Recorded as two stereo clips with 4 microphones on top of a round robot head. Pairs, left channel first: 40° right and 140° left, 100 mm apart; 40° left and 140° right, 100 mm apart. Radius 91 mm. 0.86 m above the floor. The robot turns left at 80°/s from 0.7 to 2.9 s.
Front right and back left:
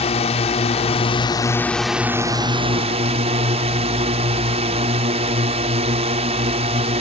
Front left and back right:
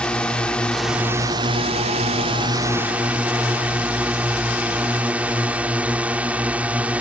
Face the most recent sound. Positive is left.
turn(degrees=145)